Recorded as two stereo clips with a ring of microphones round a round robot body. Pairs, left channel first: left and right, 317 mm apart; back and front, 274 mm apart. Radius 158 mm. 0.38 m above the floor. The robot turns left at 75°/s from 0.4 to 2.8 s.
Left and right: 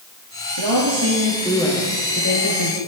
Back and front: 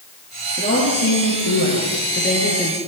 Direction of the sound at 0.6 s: 105° right.